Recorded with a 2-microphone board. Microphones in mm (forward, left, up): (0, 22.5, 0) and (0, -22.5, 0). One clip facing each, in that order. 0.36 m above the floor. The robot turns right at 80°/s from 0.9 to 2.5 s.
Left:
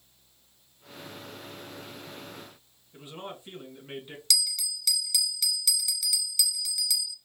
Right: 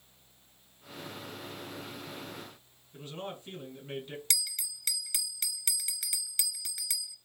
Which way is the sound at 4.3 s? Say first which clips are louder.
Left 9 dB; 35° right (ahead or behind).